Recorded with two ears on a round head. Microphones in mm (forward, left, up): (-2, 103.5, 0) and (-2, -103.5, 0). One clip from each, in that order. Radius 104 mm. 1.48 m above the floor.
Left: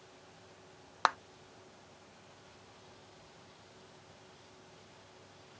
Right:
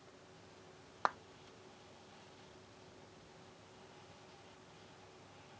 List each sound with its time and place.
1.1 s a clap: 70° left (ahead or behind)